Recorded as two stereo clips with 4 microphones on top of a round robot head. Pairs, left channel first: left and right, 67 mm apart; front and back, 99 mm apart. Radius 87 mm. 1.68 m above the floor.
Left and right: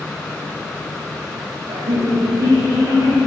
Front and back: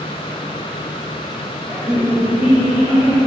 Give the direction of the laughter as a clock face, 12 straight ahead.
3 o'clock.